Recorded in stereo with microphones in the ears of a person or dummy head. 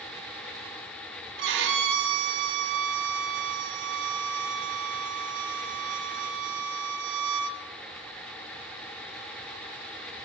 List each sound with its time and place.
1.4 s a violin: 65° right (ahead or behind), 1.1 m